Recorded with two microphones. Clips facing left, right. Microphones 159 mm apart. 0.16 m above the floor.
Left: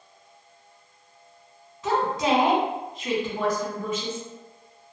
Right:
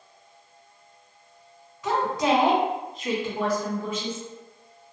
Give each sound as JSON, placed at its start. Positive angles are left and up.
{"t": 1.8, "sound": "a woman speaking", "side_deg": 30, "distance_m": 1.8}